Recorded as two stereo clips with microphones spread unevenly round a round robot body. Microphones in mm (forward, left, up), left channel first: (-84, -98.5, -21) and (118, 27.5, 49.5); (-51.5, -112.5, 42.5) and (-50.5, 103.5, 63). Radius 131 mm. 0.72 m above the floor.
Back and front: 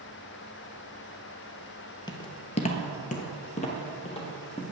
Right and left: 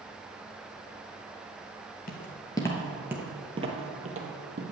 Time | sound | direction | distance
2.1 | footsteps | 60° right | 0.8 m